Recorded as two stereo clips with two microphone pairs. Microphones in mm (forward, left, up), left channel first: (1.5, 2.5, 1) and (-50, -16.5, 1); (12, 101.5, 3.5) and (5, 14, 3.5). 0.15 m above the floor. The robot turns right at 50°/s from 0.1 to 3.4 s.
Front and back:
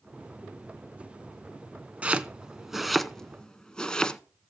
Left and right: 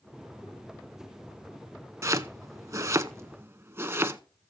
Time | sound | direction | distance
2.0 | chopping | 120° right | 0.6 m